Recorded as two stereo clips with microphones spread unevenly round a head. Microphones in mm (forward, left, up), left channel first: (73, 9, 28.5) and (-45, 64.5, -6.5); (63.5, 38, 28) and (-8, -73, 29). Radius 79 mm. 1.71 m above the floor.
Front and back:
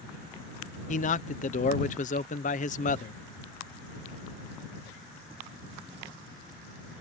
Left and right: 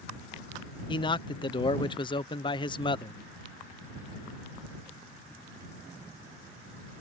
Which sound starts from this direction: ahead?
A man speaking, at 0.9 s.